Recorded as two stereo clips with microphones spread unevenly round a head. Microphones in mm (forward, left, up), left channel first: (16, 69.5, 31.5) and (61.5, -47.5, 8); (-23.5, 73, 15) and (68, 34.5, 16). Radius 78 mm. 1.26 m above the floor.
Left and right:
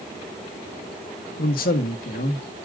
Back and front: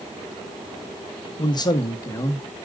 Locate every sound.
1.4 s a man speaking: 115° left, 1.1 m; by 2.5 s 95° left, 1.6 m